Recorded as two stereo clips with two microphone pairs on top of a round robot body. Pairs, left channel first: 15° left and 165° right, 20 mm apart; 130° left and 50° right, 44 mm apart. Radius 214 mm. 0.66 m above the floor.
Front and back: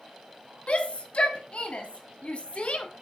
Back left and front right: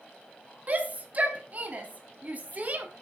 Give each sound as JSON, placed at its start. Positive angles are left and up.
{"t": 0.7, "sound": "a shout", "azimuth_deg": 0, "distance_m": 1.8}